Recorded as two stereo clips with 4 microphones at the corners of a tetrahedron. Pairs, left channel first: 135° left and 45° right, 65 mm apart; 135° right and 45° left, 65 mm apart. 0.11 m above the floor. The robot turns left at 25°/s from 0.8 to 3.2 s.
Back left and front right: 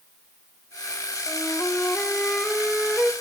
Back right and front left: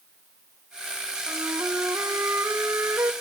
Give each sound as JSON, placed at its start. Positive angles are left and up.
{"t": 1.3, "sound": "a flute", "azimuth_deg": 75, "distance_m": 1.0}